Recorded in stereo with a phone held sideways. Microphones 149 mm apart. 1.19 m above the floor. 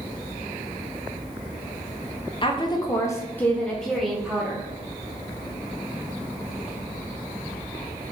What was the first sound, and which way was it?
A woman speaking, 35° left (ahead or behind).